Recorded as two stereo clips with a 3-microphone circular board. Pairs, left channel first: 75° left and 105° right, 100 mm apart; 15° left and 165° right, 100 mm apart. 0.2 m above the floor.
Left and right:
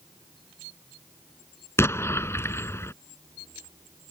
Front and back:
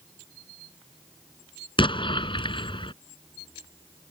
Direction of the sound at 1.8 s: 15° left.